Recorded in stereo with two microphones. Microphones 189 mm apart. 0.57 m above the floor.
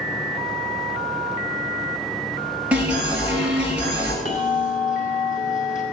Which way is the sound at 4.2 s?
45° left (ahead or behind).